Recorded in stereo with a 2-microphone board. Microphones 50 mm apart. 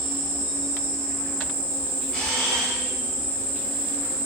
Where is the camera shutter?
20° left (ahead or behind), 0.8 m.